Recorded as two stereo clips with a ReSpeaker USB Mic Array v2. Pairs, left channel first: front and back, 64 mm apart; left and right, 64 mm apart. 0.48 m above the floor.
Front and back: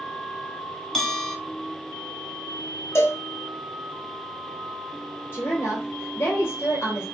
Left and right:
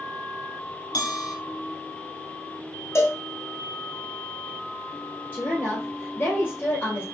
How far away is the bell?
About 1.0 m.